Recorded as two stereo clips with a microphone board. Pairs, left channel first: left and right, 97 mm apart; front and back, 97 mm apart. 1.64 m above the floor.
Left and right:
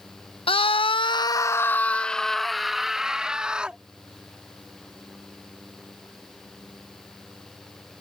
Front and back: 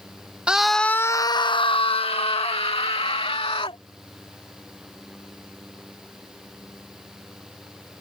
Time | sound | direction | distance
0.5 | a scream | 100° left | ?